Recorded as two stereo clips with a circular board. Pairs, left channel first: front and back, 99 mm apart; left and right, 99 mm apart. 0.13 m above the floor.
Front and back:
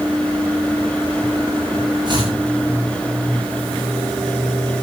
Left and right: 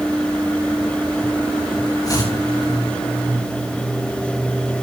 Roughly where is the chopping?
Behind left.